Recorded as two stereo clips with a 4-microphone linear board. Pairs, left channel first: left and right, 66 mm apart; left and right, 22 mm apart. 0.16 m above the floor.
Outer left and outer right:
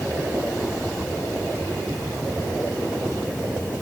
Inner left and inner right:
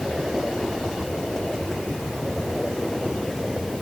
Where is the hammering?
No hammering in this recording.